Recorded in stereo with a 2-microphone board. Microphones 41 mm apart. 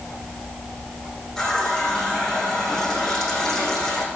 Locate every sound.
1.4 s a running tap: 10° left (ahead or behind), 6.5 m